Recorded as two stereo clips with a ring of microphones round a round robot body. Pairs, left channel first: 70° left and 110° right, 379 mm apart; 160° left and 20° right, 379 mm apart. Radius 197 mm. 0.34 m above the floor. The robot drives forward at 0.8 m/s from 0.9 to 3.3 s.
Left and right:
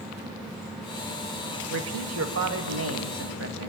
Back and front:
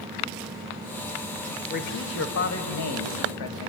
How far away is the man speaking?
About 1.4 m.